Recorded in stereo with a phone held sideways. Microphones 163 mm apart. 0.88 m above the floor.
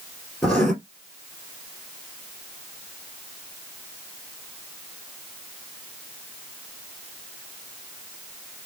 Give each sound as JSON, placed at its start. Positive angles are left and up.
{"t": 0.4, "sound": "writing", "side_deg": 5, "distance_m": 2.5}